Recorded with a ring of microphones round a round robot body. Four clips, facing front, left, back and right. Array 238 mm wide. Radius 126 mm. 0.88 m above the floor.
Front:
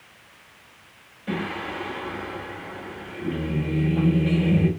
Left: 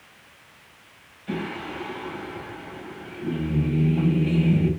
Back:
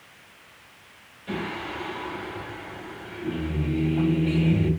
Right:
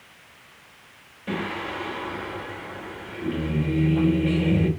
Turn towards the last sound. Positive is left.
turn(degrees=-65)